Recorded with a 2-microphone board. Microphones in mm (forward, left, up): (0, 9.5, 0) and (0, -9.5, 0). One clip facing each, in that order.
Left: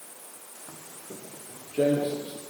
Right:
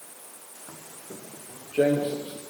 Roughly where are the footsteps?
Right.